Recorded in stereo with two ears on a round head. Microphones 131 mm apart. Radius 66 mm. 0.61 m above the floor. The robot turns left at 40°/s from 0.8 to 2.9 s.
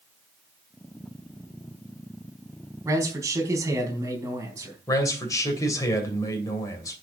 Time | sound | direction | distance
2.9 | a man speaking | 20° right (ahead or behind) | 4 m
4.9 | a man speaking | 25° left (ahead or behind) | 2.5 m